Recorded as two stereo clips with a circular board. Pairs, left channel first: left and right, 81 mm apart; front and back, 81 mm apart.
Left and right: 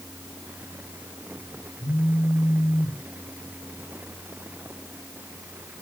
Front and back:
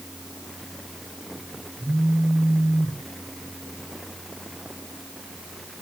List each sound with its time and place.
1.8 s a phone buzzing: 120° left, 9 m